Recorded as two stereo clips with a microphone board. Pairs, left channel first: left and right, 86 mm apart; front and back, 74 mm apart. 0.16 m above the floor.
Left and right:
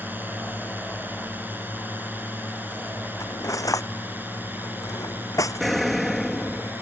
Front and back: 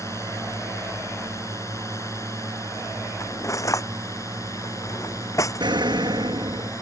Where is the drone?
30° right.